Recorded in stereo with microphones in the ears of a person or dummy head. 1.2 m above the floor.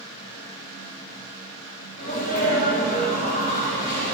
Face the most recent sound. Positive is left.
turn(degrees=45)  # may be behind; listen again after turning